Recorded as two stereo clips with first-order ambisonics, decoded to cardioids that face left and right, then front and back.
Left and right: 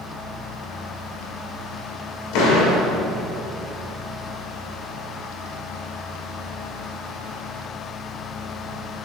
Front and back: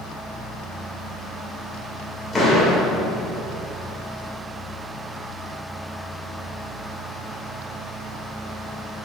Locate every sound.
2.3 s a door slam: 80° left, 2 m